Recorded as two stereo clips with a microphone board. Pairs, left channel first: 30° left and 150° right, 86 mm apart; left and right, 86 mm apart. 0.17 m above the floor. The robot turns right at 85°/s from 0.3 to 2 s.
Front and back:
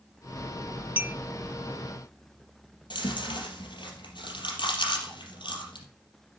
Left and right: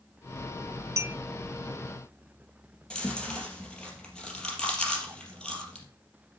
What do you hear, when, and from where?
1.0 s a clink: 95° right, 0.7 m; by 1.2 s 80° right, 0.7 m
2.9 s chewing: 10° left, 3.5 m